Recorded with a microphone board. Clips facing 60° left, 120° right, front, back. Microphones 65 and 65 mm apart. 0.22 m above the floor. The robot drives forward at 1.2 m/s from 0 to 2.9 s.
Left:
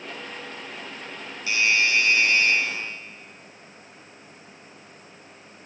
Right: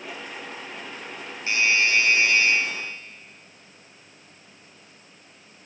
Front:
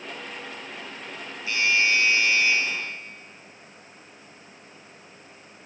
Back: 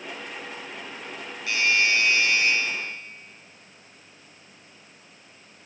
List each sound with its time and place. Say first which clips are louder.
1.5 s a doorbell: even, even; 170° right, 5 m; by 2.5 s 175° right, 6.5 m